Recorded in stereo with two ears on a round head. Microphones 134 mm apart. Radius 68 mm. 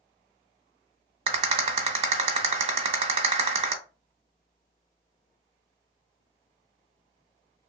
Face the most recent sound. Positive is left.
turn(degrees=-40)  # may be behind; listen again after turning